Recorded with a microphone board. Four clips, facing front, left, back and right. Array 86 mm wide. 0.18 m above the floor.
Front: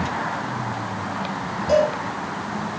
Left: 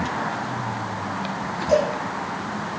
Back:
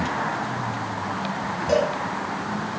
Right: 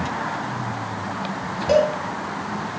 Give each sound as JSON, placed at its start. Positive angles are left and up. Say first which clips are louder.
{"t": 1.7, "sound": "a cowbell", "louder": "right 2 dB, front 3 dB", "azimuth_deg": -100, "distance_m": 5.5}